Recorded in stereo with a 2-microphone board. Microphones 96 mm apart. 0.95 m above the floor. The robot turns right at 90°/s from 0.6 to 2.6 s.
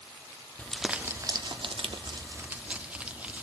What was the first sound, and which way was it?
Crumpling, 165° left.